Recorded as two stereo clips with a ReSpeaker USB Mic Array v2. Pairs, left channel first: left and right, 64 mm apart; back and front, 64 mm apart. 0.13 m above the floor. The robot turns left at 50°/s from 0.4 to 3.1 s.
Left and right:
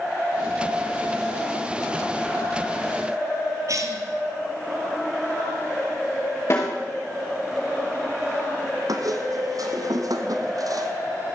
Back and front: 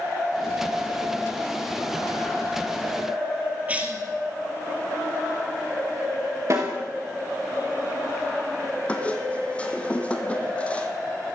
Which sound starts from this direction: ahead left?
A snare drum, at 6.5 s.